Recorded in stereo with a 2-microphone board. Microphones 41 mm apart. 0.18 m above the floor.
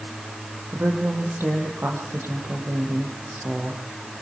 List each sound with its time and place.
0.7 s a woman speaking: 75° right (ahead or behind), 6 m